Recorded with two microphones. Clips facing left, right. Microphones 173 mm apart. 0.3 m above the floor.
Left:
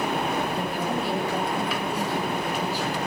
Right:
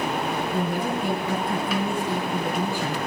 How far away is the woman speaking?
About 3.5 m.